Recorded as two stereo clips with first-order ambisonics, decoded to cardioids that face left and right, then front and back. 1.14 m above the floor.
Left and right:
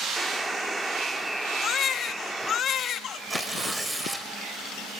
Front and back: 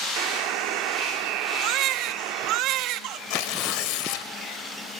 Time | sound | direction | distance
0.2 | a buzzer | 175° right | 1.2 m
1.6 | a baby crying | 145° left | 1.0 m
3.3 | tearing paper | 5° right | 2 m